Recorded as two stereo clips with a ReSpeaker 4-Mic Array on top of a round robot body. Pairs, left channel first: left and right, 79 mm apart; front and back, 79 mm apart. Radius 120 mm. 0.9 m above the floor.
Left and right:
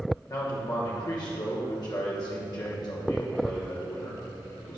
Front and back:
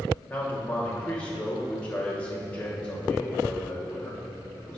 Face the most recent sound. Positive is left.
turn(degrees=70)